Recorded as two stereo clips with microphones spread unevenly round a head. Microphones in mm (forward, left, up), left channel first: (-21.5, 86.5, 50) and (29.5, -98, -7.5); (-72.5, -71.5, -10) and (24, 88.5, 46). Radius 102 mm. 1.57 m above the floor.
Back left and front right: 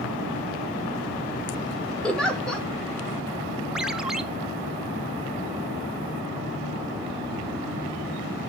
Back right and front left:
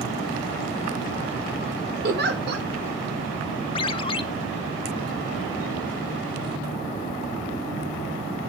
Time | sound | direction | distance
2.0 | a giggle | 20° left | 2 m
3.8 | a ringtone | 170° left | 0.8 m